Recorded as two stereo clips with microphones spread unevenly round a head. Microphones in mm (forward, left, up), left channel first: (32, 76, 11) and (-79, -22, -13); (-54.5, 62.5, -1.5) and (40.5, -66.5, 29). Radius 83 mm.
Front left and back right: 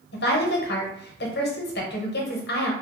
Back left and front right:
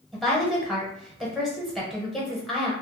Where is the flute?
No flute in this recording.